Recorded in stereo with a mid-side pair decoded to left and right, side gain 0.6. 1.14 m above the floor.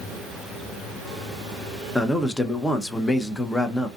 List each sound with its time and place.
1.9 s a man speaking: 15° left, 0.6 m